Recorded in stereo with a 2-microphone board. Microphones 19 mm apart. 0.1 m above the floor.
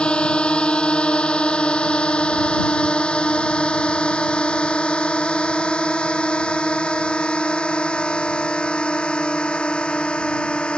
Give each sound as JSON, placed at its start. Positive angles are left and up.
{"t": 0.0, "sound": "a drone", "side_deg": 65}